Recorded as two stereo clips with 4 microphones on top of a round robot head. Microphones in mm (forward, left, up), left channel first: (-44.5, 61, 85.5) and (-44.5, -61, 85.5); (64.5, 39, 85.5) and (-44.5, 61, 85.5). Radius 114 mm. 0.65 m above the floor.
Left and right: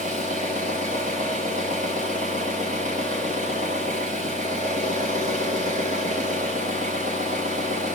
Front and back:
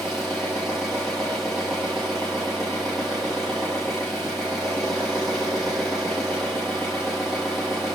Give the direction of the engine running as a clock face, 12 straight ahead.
3 o'clock.